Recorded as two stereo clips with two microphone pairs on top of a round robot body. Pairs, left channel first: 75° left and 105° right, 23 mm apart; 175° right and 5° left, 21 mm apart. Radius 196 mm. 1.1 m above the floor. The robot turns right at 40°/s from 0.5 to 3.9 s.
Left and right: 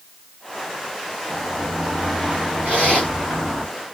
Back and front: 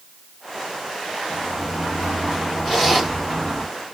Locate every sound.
1.3 s a sliding door: 175° left, 2.5 m; by 3.6 s 90° right, 2.5 m
2.6 s a zipper: 120° right, 3 m; by 3.1 s 105° right, 3 m